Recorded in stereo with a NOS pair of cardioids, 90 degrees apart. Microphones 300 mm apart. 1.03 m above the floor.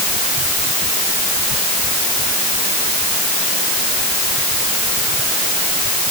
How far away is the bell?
I don't hear a bell.